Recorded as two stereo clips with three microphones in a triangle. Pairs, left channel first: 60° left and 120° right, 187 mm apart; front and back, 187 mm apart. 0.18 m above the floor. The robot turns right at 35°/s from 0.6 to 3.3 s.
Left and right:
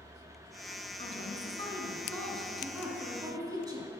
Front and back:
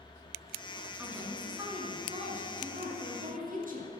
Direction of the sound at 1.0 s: 100° left.